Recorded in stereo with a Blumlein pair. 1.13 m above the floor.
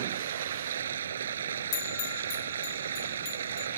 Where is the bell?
45° left.